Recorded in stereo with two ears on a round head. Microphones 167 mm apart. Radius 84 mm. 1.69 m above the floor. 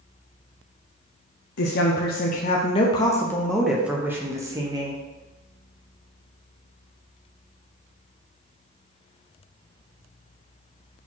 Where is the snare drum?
I don't hear a snare drum.